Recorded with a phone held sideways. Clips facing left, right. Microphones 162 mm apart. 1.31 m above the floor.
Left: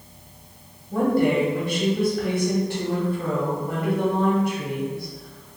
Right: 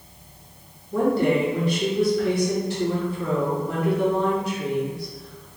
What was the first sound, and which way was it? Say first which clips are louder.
A woman speaking: even; 60° left (ahead or behind).